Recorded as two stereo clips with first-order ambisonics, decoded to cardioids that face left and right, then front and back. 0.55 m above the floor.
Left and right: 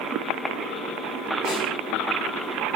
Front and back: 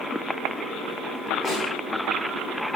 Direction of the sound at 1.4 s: 70° left.